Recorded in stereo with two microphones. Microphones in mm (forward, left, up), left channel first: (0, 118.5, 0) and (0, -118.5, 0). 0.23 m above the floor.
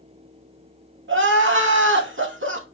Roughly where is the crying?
Right.